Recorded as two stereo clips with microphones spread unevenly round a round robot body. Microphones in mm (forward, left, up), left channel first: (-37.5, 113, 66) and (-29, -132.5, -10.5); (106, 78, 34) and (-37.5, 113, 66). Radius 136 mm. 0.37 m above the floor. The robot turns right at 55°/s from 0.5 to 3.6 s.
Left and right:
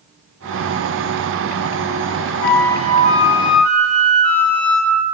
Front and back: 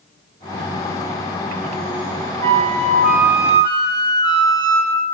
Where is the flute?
40° left, 2 m; by 5.0 s 105° left, 2 m.